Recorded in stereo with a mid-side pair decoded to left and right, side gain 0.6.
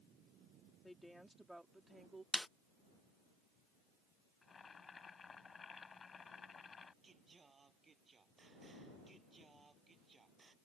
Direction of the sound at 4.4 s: 30° left.